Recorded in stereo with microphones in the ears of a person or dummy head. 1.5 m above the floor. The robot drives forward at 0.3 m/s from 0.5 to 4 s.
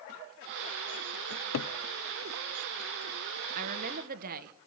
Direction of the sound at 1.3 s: 70° left (ahead or behind).